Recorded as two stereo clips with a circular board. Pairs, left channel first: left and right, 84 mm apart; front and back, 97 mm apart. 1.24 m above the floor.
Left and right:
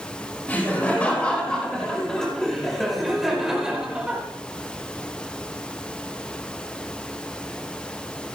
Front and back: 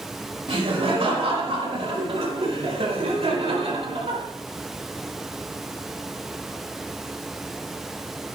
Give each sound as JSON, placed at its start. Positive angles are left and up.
{"t": 0.5, "sound": "laughter", "azimuth_deg": 160, "distance_m": 5.0}